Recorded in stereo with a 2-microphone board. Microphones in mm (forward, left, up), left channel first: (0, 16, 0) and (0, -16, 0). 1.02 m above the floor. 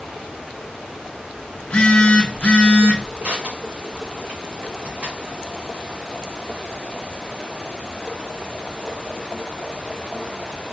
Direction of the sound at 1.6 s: 40° left (ahead or behind).